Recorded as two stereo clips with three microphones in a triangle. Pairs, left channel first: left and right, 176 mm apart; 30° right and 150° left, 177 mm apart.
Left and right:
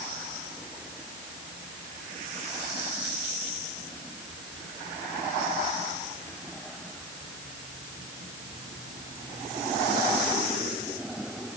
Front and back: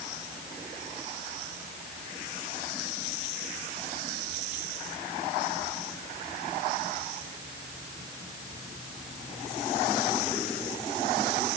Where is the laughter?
No laughter in this recording.